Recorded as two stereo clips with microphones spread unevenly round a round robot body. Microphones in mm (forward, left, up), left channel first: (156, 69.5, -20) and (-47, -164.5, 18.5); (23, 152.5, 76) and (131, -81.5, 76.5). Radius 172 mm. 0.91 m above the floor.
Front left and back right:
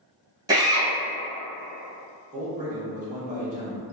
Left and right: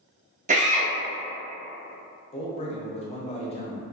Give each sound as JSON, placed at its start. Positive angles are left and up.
{"t": 0.5, "sound": "a drill", "azimuth_deg": -50, "distance_m": 0.9}
{"t": 2.3, "sound": "a man speaking", "azimuth_deg": 165, "distance_m": 0.6}